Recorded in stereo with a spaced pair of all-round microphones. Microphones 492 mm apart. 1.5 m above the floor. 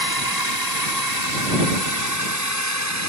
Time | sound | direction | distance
0.0 | a drone | 45° right (ahead or behind) | ?